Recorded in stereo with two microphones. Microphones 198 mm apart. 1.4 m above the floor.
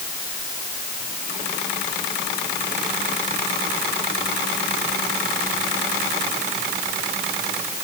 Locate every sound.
Only background noise.